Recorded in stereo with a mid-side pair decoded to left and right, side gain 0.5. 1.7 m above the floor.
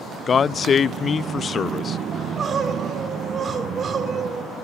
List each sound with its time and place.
0.3 s a man speaking: 40° left, 0.6 m
2.1 s crying: 45° right, 4.5 m